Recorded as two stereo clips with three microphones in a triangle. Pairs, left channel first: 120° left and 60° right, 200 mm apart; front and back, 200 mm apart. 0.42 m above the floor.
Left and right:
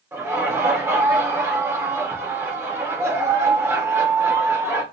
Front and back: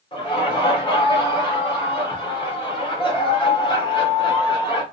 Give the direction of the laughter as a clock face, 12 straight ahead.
12 o'clock.